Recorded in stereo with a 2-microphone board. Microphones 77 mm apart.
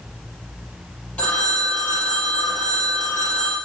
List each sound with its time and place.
1.2 s a phone ringing: 20° left (ahead or behind), 4.5 m